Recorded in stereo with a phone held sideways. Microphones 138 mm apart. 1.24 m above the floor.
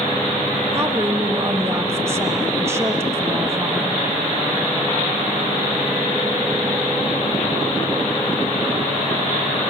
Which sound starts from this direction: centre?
A woman speaking, at 0.7 s.